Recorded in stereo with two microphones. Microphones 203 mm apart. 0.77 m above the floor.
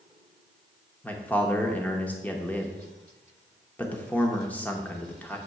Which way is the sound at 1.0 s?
10° left (ahead or behind).